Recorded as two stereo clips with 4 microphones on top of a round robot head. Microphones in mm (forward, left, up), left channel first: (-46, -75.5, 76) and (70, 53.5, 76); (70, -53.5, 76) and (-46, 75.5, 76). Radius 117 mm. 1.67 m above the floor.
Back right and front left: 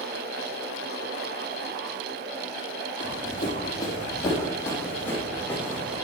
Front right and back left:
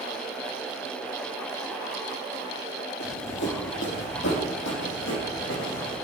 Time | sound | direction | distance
3.0 | running footsteps | 70° right | 3.5 m